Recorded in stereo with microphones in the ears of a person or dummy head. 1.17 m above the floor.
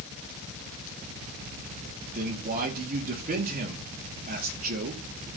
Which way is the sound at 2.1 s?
45° right (ahead or behind).